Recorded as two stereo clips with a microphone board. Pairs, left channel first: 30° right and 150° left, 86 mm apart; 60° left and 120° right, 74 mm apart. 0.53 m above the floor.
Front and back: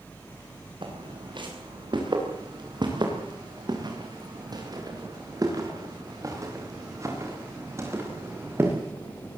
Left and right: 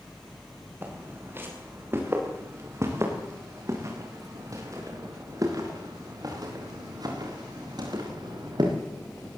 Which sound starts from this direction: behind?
Footsteps, at 0.8 s.